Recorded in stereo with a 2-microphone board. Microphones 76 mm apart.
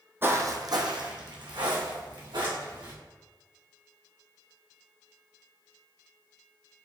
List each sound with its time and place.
0.2 s footsteps: 30° right (ahead or behind), 0.5 m; by 2.9 s 70° right (ahead or behind), 2.0 m